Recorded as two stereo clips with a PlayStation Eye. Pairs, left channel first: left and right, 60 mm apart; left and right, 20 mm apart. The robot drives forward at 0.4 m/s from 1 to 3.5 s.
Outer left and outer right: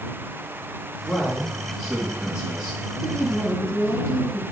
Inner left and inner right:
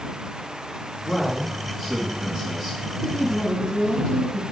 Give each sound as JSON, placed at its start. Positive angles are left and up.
{"t": 1.1, "sound": "a man speaking", "side_deg": 15, "distance_m": 1.7}
{"t": 3.0, "sound": "a woman speaking", "side_deg": 45, "distance_m": 4.0}